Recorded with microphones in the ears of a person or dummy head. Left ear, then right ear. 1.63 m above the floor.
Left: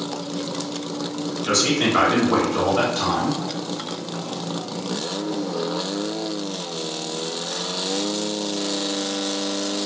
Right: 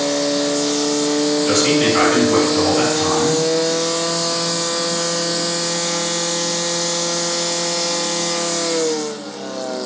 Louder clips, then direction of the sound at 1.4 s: Right 1 dB; 50° left (ahead or behind).